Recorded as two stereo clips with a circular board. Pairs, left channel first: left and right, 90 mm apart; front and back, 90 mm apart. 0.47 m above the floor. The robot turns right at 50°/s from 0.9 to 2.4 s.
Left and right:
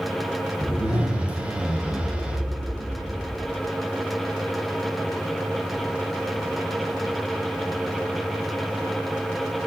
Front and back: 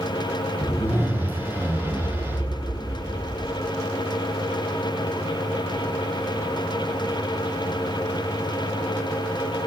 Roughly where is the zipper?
Ahead left.